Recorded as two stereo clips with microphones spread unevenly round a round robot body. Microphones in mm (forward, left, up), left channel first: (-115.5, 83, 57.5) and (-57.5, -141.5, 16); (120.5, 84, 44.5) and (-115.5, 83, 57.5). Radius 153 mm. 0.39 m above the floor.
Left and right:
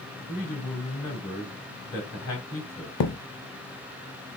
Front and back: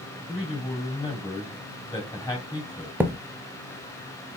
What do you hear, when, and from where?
0.3 s a man speaking: 75° left, 2.5 m
3.0 s a thud: 95° left, 0.6 m